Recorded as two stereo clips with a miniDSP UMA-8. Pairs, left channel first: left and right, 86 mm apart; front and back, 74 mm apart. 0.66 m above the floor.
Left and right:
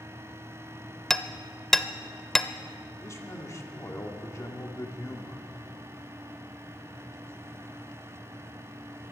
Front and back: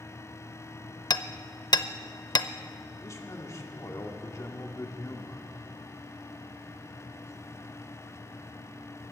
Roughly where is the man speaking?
Ahead left.